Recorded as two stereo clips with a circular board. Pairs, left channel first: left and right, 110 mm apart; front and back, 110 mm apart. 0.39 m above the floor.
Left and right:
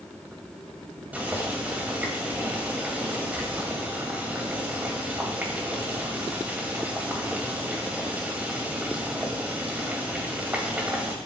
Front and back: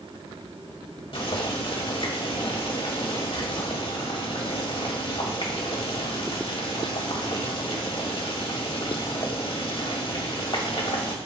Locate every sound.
1.1 s boiling: 15° right, 2.0 m